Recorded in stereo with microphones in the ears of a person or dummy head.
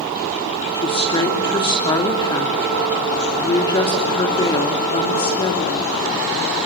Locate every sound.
0.8 s a woman speaking: 25° left (ahead or behind), 3 m